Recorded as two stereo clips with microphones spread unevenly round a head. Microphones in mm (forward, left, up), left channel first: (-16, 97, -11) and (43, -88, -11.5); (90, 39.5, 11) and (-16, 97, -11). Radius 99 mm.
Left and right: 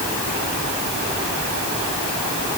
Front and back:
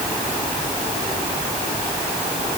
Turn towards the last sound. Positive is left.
No sound to turn to.